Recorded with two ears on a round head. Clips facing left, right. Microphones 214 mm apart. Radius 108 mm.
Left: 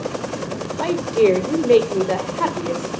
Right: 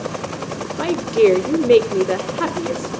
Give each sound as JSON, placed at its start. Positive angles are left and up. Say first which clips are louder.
{"t": 0.8, "sound": "a woman speaking", "louder": "right 2 dB", "side_deg": -15, "distance_m": 1.4}